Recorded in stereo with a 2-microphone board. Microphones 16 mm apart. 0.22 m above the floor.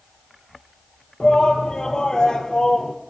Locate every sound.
1.2 s a shout: 45° left (ahead or behind), 7 m; by 2.9 s 50° left (ahead or behind), 6.5 m